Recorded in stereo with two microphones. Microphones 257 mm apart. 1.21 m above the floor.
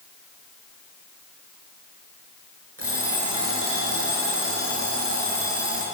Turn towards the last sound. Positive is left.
turn(degrees=-60)  # may be behind; listen again after turning